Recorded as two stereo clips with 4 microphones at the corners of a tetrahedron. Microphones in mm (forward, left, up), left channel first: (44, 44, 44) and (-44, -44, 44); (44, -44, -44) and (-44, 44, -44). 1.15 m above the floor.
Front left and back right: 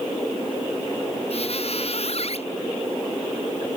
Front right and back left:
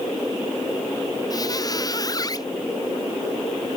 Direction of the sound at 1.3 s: 15° left.